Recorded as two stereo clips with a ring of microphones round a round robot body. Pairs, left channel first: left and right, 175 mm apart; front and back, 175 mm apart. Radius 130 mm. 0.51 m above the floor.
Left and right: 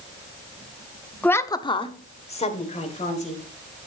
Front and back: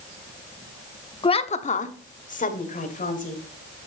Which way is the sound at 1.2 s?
15° left.